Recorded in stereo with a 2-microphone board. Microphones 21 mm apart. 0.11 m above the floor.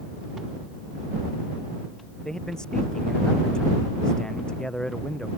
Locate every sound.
2.2 s a man speaking: 40° left (ahead or behind)